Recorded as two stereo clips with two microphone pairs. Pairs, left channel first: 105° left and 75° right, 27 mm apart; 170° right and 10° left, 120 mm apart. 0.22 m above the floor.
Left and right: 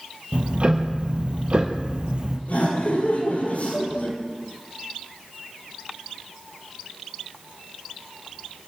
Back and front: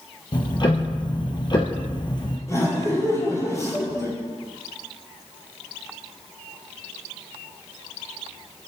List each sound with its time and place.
0.3 s ticking: 120° right, 2.5 m
2.5 s laughter: 130° left, 6 m